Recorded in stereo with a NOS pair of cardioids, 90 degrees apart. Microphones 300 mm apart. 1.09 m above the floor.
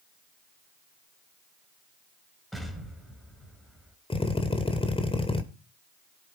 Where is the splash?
No splash in this recording.